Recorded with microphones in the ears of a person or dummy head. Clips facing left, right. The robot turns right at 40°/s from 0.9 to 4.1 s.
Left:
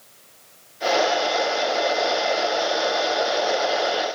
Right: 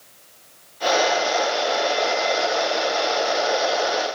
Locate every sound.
Only background noise.